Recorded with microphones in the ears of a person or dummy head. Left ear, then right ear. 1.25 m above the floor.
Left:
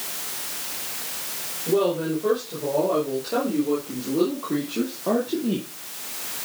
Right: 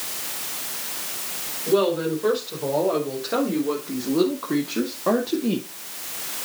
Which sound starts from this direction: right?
A woman speaking, at 1.7 s.